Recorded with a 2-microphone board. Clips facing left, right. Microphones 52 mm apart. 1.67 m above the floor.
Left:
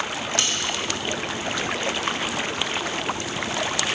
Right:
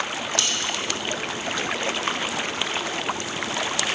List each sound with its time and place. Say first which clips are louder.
0.4 s cutlery clinking: left 1 dB; 35° left (ahead or behind), 1.3 m